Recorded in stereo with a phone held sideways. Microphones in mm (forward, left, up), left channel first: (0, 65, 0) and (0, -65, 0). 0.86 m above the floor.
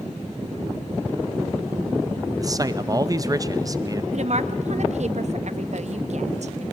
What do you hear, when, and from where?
2.4 s a man speaking: 30° right (ahead or behind), 0.6 m
4.1 s a woman speaking: 60° right (ahead or behind), 0.8 m